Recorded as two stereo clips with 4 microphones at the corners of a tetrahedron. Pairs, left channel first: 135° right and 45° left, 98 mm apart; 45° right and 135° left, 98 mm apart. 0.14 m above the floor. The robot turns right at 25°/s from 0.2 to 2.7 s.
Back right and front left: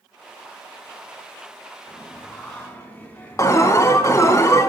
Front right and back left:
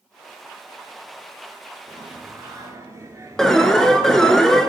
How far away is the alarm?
About 0.8 m.